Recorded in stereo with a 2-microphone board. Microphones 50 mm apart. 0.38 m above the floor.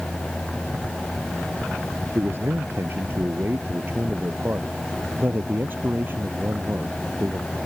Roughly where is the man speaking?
Right.